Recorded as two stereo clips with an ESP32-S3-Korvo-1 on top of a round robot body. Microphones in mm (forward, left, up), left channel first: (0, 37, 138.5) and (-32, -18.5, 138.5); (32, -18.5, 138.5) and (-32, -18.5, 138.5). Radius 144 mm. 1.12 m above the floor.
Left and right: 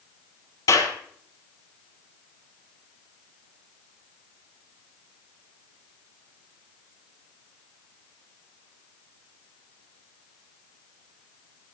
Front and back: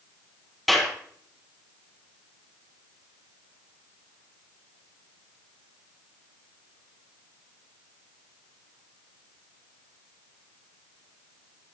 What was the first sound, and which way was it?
A clap, 85° left.